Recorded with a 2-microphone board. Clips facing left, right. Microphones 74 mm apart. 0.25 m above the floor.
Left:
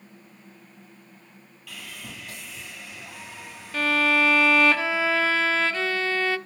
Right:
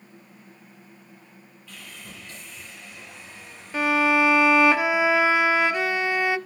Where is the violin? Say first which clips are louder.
Right 2 dB; 15° right (ahead or behind), 0.6 m.